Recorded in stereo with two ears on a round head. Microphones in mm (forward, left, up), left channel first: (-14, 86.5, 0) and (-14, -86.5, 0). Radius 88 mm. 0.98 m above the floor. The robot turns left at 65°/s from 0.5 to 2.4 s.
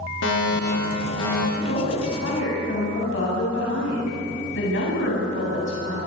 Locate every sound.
0.2 s a fire alarm: 70° left, 5.5 m; by 1.4 s 10° left, 5.5 m
1.5 s a woman speaking: 115° left, 8.5 m; by 6.0 s 60° left, 8.5 m